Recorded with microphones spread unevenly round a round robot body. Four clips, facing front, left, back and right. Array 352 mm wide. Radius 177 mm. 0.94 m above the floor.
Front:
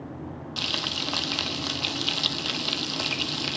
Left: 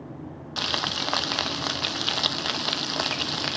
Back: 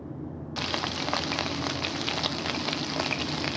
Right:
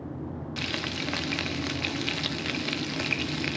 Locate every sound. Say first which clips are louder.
0.6 s frying: left 5 dB, back 4 dB; 110° left, 0.7 m